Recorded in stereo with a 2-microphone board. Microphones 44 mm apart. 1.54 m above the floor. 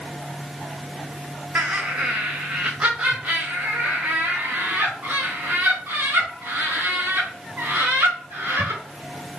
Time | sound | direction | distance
1.6 | laughter | 45° right (ahead or behind) | 0.5 m